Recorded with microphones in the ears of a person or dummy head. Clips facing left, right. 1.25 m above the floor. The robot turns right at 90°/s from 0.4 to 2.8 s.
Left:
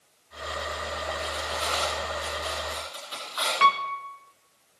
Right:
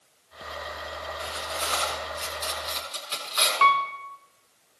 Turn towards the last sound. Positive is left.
turn(degrees=25)  # may be behind; listen again after turning